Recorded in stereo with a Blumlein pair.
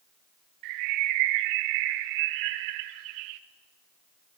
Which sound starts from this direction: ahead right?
A bird, at 0.6 s.